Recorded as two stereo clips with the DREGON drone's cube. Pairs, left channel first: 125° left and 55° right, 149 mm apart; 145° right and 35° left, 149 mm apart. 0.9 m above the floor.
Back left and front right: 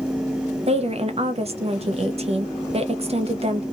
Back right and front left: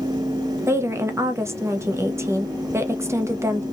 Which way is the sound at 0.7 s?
30° right.